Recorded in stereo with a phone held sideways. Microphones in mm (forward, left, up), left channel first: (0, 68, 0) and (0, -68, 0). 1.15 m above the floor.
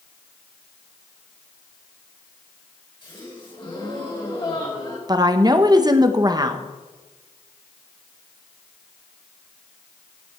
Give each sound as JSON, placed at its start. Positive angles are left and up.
{"t": 3.0, "sound": "a gasp", "side_deg": 35, "distance_m": 3.5}
{"t": 5.1, "sound": "a woman speaking", "side_deg": -30, "distance_m": 1.0}